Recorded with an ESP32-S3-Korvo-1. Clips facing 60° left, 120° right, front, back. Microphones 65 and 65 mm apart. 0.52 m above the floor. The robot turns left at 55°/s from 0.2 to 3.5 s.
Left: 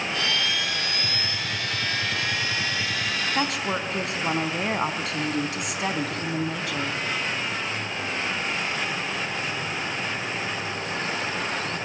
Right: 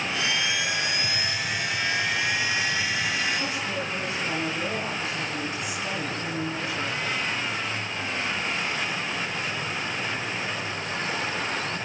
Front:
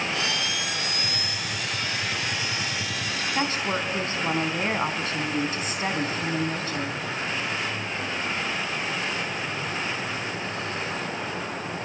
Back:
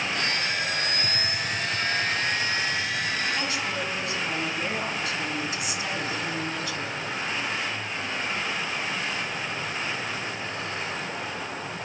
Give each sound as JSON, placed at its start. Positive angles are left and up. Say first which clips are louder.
{"t": 1.0, "sound": "a gunshot", "louder": "right 1 dB, back 2 dB", "azimuth_deg": 135, "distance_m": 6.0}
{"t": 3.4, "sound": "a woman speaking", "louder": "left 3 dB, front 3 dB", "azimuth_deg": 60, "distance_m": 4.0}